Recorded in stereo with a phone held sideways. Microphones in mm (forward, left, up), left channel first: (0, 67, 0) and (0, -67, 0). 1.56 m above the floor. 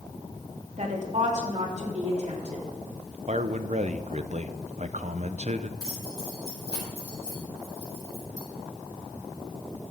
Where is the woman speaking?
60° right (ahead or behind), 2.5 m.